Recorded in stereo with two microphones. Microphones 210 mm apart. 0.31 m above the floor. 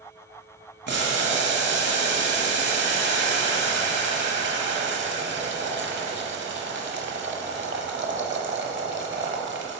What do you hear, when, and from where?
0.9 s boiling: 60° right (ahead or behind), 0.8 m